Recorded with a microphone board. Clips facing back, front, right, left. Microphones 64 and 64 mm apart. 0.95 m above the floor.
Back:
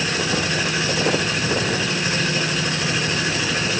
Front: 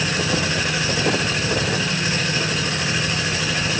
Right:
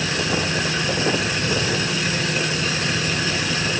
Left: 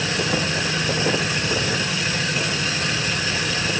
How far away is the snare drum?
No snare drum in this recording.